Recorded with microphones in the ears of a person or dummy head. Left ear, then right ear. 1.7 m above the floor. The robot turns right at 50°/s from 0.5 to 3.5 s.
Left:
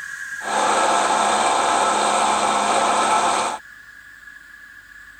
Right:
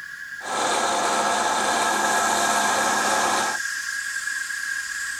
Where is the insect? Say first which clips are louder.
Left 5 dB; 150° left; by 5.2 s 60° right.